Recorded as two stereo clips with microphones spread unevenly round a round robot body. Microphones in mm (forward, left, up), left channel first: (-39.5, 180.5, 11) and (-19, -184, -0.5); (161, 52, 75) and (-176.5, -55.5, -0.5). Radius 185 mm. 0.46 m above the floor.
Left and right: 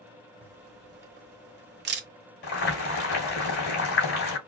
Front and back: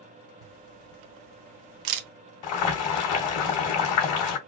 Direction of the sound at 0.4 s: 145° right.